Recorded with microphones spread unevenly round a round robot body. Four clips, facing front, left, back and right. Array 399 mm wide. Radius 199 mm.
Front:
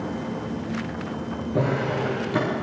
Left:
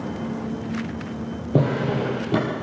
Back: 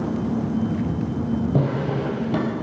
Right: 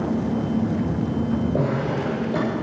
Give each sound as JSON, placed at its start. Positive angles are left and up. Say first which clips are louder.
{"t": 1.5, "sound": "a drawer", "louder": "left 1 dB, back 1 dB", "azimuth_deg": 135, "distance_m": 3.5}